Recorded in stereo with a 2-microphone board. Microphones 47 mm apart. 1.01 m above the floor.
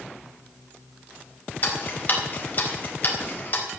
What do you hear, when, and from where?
1.6 s ticking: 40° left (ahead or behind), 4 m